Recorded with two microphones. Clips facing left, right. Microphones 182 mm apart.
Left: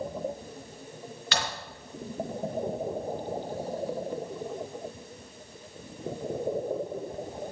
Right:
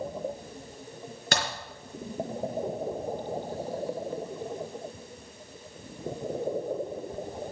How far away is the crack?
About 4 m.